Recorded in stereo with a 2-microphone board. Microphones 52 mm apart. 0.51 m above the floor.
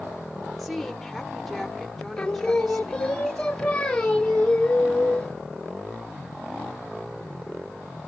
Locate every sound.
0.6 s a woman speaking: centre (ahead or behind), 1.5 m
2.2 s singing: 10° left (ahead or behind), 1.6 m